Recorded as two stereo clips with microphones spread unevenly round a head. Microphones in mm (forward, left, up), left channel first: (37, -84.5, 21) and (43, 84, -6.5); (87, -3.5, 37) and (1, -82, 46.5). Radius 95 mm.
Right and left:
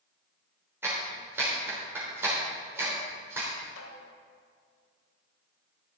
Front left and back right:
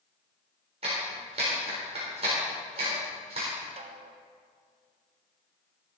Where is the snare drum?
110° right, 1.5 m.